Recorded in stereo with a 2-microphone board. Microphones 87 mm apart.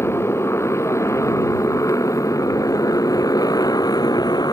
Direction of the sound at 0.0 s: 30° left (ahead or behind).